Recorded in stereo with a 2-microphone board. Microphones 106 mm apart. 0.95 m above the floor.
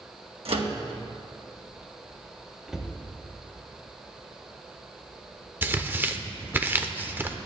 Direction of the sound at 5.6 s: 20° right (ahead or behind).